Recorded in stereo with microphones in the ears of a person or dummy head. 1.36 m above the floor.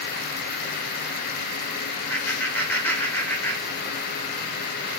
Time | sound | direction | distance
2.1 | laughter | 10° left (ahead or behind) | 0.5 m